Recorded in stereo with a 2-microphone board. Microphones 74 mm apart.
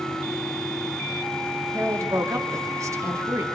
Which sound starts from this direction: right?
A woman speaking, at 1.7 s.